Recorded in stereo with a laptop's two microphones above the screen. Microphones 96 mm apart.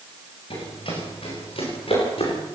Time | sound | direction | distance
0.5 | running footsteps | 70° left (ahead or behind) | 9.5 m